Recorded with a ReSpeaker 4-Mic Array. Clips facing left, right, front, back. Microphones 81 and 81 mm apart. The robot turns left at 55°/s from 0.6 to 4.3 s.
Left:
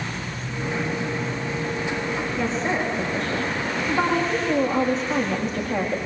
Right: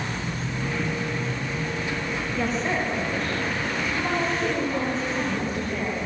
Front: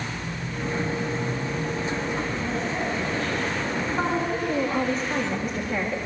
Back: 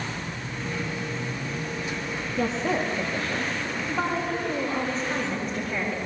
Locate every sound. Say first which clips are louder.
2.4 s a woman speaking: even, back 2 dB; 170° right, 9.5 m; by 6.0 s 85° left, 9.5 m